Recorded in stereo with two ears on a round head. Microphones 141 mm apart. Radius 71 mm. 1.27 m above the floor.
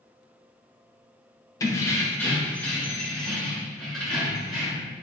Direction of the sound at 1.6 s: 20° left (ahead or behind).